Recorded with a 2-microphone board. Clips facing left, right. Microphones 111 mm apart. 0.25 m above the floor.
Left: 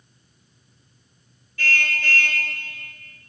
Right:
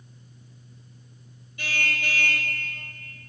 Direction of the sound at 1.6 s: 20° right (ahead or behind).